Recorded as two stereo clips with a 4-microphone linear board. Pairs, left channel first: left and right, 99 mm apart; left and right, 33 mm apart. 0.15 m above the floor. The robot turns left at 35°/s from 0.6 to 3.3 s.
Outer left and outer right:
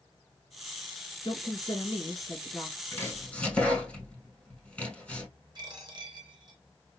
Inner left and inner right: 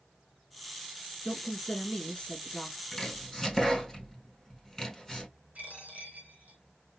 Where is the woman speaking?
95° left, 1.6 m; by 2.8 s 40° left, 1.6 m.